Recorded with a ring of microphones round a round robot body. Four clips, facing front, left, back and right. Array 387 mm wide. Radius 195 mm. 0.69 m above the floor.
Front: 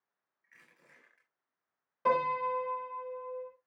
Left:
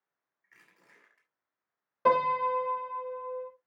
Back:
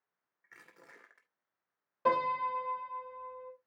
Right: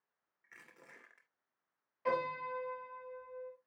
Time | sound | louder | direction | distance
0.4 | crushing | right 4 dB, back 6 dB | 155° right | 2.5 m
2.0 | a piano | left 11 dB, front 1 dB | 95° left | 3.5 m